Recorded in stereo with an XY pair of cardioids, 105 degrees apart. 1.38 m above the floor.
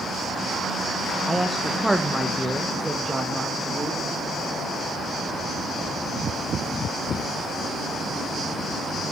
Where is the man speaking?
5° right, 1.3 m; by 4.0 s 15° right, 3 m.